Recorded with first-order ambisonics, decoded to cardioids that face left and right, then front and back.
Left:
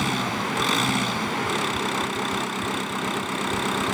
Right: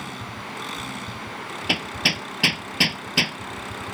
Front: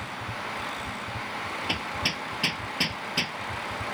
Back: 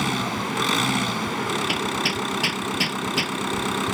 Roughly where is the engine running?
Behind left.